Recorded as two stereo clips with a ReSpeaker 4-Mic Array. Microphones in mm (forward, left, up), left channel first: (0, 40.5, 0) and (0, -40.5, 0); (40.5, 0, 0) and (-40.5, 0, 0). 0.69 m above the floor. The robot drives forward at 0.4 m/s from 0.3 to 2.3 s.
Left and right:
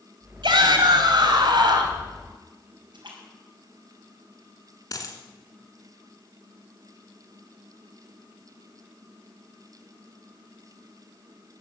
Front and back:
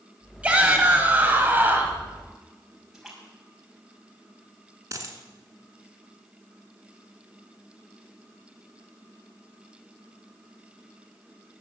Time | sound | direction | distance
0.4 | a shout | 105° right | 3.5 m
2.9 | a splash | 95° right | 5.5 m
4.9 | a dropped coin | 135° left | 1.7 m